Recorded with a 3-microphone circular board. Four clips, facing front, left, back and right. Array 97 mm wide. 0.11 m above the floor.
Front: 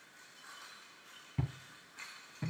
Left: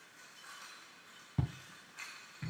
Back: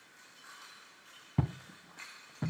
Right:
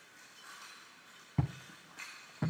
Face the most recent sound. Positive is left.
turn(degrees=-110)